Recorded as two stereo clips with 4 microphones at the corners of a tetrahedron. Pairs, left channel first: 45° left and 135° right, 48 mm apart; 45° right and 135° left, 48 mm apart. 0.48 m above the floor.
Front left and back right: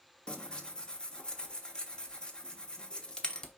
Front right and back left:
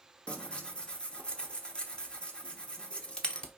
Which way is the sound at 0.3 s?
5° right.